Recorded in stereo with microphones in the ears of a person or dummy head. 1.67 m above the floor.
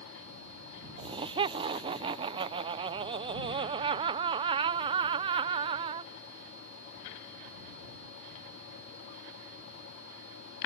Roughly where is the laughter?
Right.